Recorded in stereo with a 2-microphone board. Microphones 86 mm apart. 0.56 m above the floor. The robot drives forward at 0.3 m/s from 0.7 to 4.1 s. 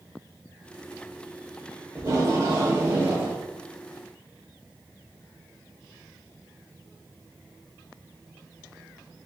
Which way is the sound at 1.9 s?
40° right (ahead or behind).